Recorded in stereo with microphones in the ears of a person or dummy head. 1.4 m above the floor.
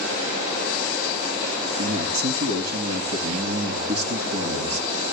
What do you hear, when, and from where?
1.8 s a man speaking: 85° right, 2.5 m